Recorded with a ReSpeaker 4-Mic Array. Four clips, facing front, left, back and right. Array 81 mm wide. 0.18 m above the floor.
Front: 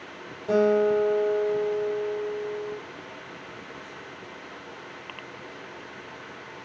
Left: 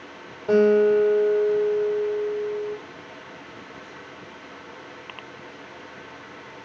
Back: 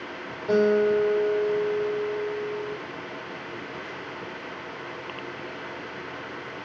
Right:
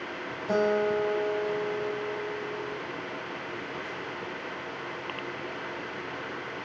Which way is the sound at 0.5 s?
75° left.